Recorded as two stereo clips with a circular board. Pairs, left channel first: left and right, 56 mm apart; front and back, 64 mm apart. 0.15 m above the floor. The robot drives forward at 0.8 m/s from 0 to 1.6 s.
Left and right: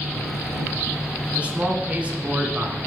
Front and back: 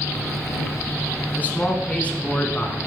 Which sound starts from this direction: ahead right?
A man speaking, at 1.4 s.